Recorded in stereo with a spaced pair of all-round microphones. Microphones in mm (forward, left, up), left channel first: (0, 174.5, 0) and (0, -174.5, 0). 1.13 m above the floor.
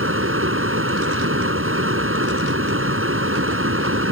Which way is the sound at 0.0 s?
35° right (ahead or behind).